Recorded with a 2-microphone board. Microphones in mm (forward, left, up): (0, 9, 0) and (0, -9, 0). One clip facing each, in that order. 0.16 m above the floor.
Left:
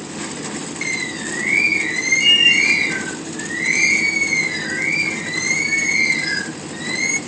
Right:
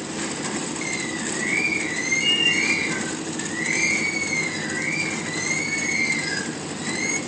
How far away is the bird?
About 0.8 m.